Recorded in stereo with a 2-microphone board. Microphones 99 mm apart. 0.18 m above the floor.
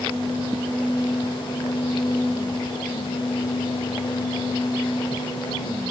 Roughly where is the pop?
I don't hear a pop.